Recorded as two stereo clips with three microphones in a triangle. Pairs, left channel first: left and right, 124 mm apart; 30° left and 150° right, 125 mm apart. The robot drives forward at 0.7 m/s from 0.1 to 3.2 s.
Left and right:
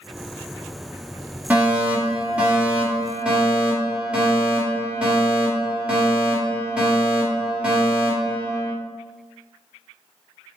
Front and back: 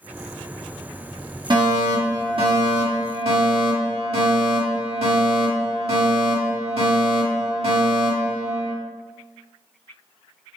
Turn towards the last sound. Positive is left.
turn(degrees=-170)